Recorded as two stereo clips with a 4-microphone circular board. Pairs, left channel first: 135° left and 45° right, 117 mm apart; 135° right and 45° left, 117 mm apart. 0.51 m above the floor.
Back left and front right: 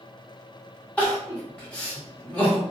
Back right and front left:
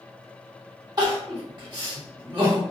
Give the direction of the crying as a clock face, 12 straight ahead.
10 o'clock.